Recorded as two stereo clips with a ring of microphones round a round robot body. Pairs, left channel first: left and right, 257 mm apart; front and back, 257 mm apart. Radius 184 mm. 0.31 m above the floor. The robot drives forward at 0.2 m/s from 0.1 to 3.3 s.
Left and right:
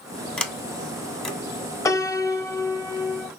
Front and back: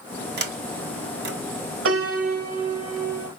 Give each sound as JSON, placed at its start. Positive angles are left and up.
{"t": 0.4, "sound": "a sliding door", "azimuth_deg": 175, "distance_m": 1.2}
{"t": 1.9, "sound": "a piano", "azimuth_deg": 165, "distance_m": 1.0}